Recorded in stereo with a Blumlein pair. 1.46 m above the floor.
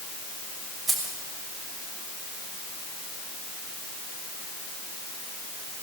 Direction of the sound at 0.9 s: 10° right.